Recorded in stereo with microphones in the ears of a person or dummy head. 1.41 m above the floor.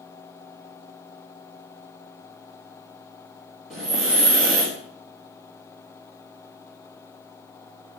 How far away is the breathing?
About 0.9 m.